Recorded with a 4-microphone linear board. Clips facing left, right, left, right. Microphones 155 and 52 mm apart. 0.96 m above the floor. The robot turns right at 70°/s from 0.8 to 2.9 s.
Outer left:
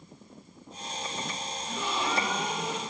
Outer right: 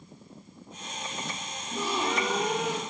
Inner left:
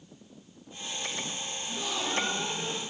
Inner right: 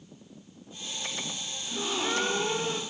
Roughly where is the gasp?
Behind right.